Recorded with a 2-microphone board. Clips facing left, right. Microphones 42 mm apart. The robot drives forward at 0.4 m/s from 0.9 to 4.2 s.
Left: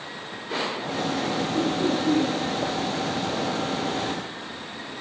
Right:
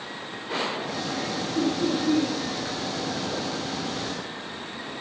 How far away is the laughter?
About 4.5 m.